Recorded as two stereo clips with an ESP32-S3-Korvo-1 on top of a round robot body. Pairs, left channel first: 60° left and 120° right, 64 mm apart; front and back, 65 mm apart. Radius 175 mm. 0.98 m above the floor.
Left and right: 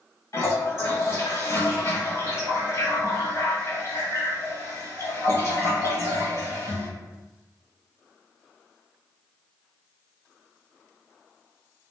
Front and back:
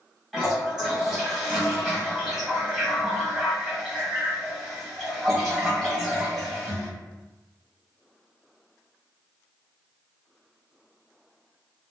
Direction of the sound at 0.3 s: 100° left.